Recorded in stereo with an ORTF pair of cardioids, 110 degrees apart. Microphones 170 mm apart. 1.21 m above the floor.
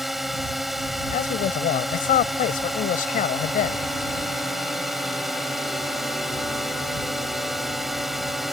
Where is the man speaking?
60° left.